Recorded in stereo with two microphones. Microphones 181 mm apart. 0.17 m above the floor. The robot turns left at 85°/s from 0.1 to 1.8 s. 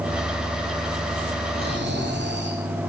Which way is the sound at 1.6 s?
60° right (ahead or behind).